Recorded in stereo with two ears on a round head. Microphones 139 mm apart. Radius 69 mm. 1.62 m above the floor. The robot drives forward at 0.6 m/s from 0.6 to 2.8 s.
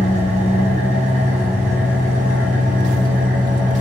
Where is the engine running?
45° right (ahead or behind), 5.5 m; by 3.8 s 55° right (ahead or behind), 5 m.